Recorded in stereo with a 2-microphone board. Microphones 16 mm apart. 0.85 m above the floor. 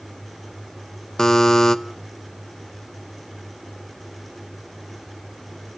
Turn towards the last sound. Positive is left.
turn(degrees=35)  # may be behind; listen again after turning